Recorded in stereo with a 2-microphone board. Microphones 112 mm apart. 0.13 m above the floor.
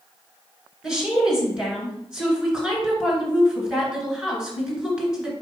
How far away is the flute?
No flute in this recording.